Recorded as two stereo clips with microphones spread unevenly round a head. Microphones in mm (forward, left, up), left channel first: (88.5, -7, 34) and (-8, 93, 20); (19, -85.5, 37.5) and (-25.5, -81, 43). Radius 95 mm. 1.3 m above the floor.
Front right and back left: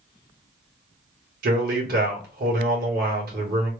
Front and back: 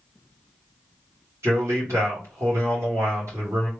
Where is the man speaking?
140° left, 1.6 m.